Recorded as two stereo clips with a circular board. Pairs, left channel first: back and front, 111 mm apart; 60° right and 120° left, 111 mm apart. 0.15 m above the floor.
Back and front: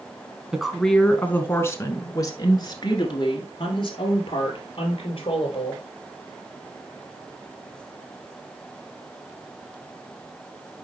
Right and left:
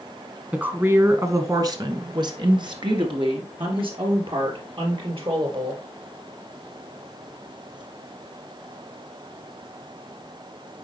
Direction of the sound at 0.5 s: 75° left.